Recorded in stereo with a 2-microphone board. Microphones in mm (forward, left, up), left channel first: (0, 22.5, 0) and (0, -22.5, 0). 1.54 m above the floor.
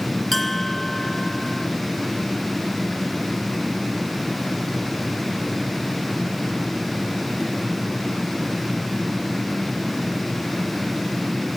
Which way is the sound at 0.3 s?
5° left (ahead or behind).